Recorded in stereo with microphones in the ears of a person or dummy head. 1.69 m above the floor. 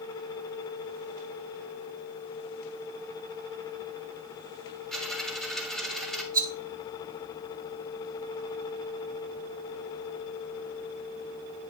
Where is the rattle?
15° right (ahead or behind), 0.8 m.